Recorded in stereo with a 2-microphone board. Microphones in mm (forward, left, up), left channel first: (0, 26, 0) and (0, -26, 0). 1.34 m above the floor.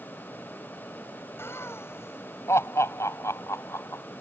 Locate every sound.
1.4 s laughter: 50° left (ahead or behind); by 4.0 s 70° left (ahead or behind)